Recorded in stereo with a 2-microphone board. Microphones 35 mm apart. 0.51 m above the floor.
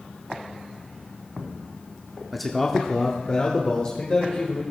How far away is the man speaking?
About 0.7 m.